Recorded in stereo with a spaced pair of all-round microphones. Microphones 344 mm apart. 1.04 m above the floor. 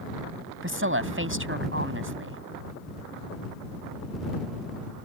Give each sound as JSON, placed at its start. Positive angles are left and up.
{"t": 0.6, "sound": "a woman speaking", "side_deg": -35}